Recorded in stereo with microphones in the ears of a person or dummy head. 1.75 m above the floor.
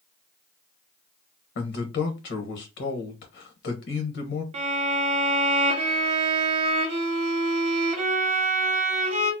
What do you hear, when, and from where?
1.6 s a man speaking: 60° left (ahead or behind), 1.2 m
4.5 s a violin: 40° right (ahead or behind), 0.8 m